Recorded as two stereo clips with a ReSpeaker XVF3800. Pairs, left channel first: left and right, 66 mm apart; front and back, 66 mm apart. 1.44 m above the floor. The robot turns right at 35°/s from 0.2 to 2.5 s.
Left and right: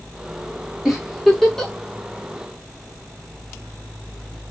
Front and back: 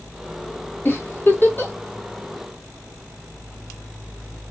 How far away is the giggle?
About 0.7 m.